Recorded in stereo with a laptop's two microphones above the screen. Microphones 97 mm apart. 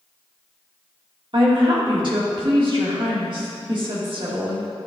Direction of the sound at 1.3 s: 55° right (ahead or behind).